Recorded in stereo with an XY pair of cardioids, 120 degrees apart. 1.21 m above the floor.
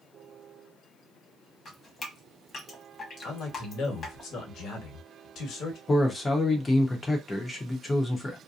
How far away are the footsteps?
No footsteps in this recording.